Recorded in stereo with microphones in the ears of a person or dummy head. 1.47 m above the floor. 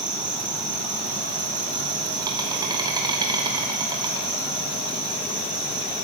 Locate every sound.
0.0 s an insect: 25° right (ahead or behind), 1.2 m